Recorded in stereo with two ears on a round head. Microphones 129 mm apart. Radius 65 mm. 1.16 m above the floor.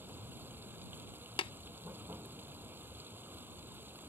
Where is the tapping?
35° left (ahead or behind).